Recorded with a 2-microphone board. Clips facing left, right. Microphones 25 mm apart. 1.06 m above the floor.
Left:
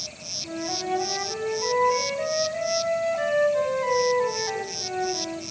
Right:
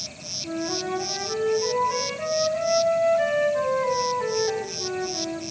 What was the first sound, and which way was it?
A flute, 20° left (ahead or behind).